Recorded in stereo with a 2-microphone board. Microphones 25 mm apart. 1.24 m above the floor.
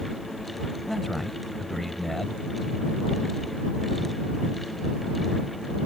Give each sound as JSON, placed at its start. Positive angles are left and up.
{"t": 0.9, "sound": "a man speaking", "side_deg": 10}